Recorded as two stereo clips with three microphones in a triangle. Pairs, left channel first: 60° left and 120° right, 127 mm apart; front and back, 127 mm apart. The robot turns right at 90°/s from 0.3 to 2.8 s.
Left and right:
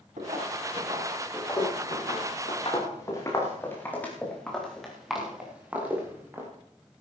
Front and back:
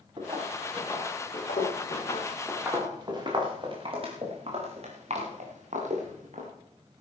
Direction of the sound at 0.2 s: 130° right.